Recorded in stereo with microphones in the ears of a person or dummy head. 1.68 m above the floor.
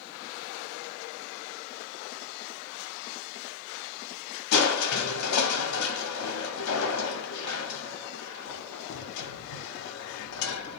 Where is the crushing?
90° left, 0.7 m.